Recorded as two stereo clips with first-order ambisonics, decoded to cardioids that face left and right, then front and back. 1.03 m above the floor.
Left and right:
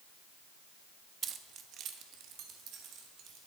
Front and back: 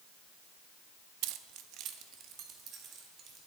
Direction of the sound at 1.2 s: 155° right.